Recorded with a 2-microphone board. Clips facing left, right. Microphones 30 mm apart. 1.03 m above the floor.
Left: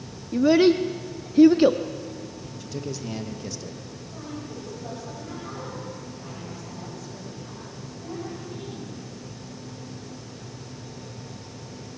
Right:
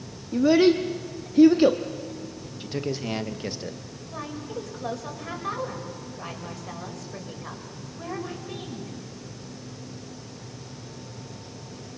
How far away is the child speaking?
About 0.7 m.